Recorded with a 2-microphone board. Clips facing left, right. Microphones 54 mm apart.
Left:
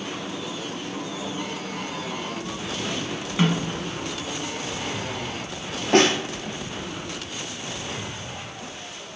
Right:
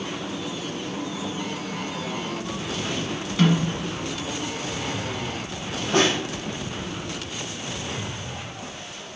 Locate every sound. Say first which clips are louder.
3.4 s a snare drum: right 2 dB; 20° left (ahead or behind), 1.0 m
5.9 s a snare drum: left 3 dB; 70° left (ahead or behind), 0.7 m